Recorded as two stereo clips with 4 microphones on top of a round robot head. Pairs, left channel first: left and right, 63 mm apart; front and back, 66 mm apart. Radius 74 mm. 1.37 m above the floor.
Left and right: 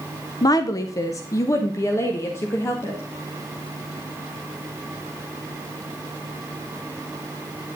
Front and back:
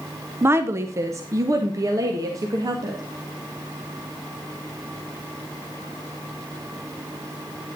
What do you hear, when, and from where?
0.4 s a woman speaking: 120° left, 0.6 m; by 3.0 s 140° left, 1.9 m